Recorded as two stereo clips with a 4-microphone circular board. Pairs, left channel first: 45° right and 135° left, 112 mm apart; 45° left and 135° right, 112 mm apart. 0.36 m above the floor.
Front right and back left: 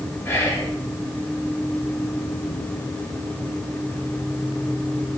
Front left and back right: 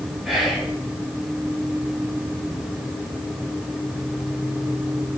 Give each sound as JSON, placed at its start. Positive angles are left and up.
{"t": 0.2, "sound": "whispering", "azimuth_deg": -55, "distance_m": 0.8}